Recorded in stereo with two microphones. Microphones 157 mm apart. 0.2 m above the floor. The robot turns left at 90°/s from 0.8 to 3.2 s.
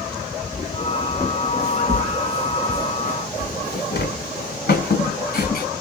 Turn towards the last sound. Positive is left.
turn(degrees=65)  # may be behind; listen again after turning